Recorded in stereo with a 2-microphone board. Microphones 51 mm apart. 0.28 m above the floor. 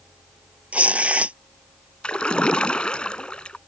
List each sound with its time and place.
0.7 s tearing paper: 30° right (ahead or behind)
2.0 s a splash: 20° left (ahead or behind)